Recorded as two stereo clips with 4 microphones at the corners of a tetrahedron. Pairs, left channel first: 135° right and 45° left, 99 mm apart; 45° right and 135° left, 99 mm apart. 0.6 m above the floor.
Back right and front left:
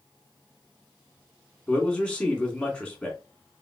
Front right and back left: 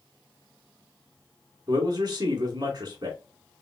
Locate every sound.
1.7 s a man speaking: 155° left, 1.7 m